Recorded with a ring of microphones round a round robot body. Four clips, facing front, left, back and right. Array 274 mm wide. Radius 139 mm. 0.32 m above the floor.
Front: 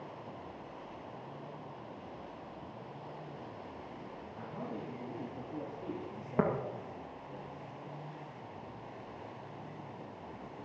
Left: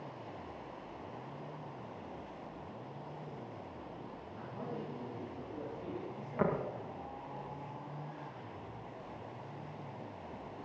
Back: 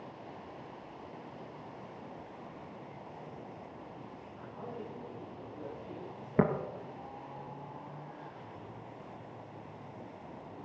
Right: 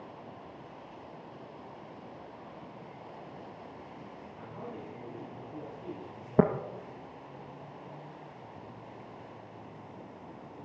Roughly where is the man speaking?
Ahead.